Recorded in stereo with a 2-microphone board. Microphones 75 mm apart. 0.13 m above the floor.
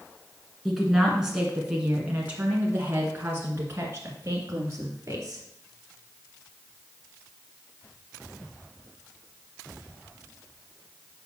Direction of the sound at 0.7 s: Centre (ahead or behind).